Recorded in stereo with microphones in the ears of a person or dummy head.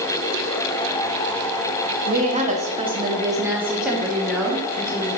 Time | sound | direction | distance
2.1 | a woman speaking | 45° right (ahead or behind) | 1.8 m